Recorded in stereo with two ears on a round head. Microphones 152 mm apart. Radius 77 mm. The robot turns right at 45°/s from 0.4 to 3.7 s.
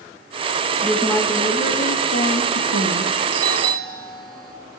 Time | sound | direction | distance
0.8 | a woman speaking | straight ahead | 3.5 m
3.3 | a doorbell | 60° right (ahead or behind) | 3 m